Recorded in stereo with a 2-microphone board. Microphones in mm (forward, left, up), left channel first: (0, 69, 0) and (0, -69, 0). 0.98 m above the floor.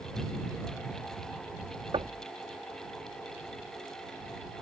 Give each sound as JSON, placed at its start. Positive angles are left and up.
{"t": 1.9, "sound": "knocking", "side_deg": -40}